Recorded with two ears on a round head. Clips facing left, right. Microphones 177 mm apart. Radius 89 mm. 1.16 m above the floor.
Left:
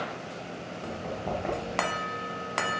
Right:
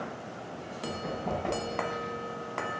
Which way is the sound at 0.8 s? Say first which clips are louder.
Even; 5° right (ahead or behind).